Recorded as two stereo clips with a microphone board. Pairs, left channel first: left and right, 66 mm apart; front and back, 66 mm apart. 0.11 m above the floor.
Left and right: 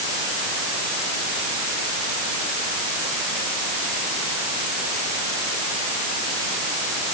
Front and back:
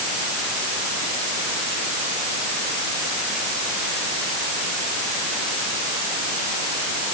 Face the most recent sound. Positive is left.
No sound to turn to.